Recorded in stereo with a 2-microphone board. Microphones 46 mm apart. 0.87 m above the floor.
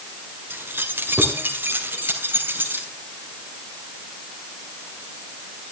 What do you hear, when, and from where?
0.5 s keys jangling: 55° right (ahead or behind), 1.8 m; by 2.9 s 45° right (ahead or behind), 3.5 m